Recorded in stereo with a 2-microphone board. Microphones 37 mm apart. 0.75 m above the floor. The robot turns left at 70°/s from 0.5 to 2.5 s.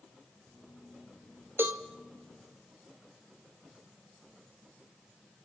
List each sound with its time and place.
1.6 s a cowbell: 80° right, 0.8 m; by 1.8 s 70° right (ahead or behind), 0.8 m